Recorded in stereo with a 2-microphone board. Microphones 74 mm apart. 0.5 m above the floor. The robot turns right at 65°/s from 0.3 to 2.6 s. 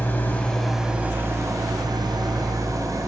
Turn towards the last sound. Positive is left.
turn(degrees=-60)